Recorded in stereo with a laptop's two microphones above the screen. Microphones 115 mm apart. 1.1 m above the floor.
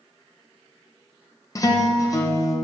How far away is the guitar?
About 0.8 m.